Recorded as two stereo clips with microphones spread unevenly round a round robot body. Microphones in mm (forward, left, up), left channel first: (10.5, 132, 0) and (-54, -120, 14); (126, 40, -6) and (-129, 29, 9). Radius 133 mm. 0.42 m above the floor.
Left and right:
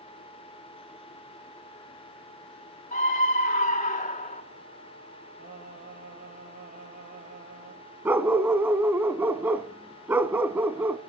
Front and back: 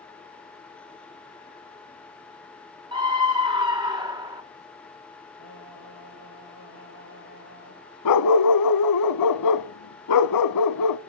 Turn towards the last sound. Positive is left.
turn(degrees=-20)